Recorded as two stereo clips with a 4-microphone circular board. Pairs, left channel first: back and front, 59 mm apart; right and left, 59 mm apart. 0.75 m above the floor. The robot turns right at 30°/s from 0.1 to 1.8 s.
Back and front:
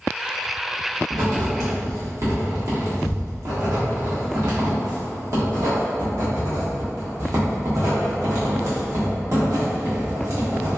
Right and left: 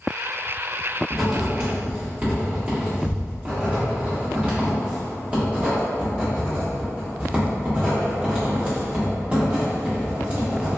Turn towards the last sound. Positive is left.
turn(degrees=25)